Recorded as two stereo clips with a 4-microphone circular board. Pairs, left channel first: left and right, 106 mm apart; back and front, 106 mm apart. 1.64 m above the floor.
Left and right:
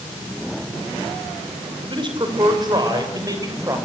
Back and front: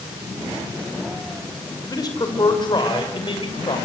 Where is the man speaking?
130° right, 5 m; by 3.8 s 145° right, 7 m.